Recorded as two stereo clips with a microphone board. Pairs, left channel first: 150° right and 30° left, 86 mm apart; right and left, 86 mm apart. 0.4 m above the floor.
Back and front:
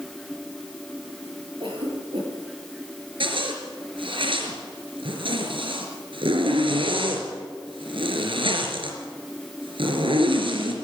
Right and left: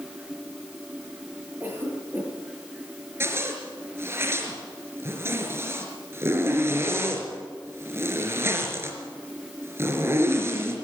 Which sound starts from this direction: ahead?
A cough, at 1.6 s.